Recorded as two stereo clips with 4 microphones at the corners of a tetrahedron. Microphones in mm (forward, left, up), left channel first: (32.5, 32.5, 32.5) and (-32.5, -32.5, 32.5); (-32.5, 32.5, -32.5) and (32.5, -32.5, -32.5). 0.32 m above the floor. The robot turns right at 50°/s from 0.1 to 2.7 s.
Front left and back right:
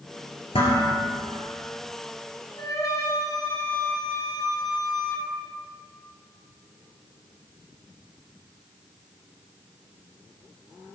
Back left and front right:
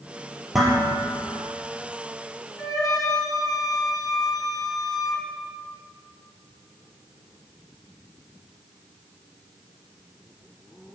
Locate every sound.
0.5 s dishes clattering: 40° left, 4.5 m; by 0.9 s 60° left, 4.5 m
2.6 s a flute: 85° left, 2.5 m; by 5.3 s 95° left, 2.5 m